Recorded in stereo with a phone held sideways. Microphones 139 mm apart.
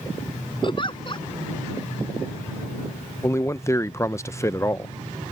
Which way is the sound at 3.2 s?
20° left (ahead or behind).